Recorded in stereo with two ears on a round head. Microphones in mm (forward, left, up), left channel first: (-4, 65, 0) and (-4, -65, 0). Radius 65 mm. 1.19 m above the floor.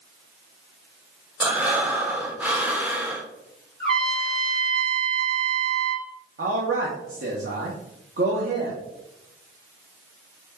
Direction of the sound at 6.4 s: 60° right (ahead or behind).